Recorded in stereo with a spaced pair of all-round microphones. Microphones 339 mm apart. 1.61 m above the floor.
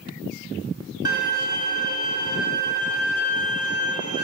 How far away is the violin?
About 1.3 m.